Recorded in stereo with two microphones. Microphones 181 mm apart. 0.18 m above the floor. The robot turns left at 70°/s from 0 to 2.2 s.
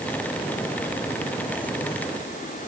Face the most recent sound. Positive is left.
No sound to turn to.